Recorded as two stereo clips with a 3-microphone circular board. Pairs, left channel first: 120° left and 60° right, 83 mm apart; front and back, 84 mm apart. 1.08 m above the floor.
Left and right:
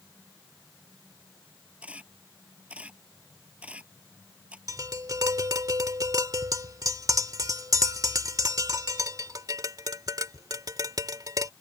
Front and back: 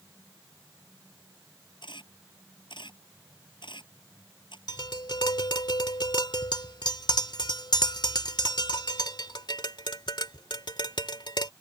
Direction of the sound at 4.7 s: 20° right.